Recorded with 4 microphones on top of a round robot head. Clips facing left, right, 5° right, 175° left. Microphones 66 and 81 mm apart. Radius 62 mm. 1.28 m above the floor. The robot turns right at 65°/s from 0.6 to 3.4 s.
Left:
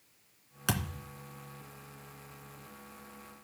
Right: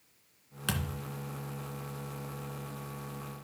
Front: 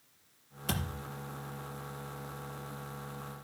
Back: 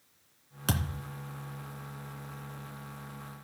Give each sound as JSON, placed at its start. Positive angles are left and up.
{"t": 0.7, "sound": "a thud", "azimuth_deg": 165, "distance_m": 2.5}